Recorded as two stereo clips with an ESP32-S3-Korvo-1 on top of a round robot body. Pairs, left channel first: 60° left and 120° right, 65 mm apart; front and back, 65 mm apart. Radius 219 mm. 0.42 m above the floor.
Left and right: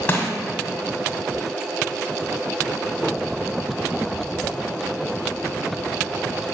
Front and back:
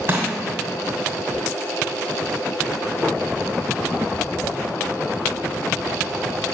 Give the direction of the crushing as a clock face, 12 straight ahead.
8 o'clock.